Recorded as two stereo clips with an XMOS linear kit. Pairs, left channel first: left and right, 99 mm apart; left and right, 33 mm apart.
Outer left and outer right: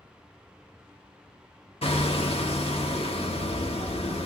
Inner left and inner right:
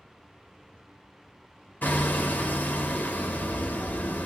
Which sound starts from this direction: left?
Hammering, at 1.8 s.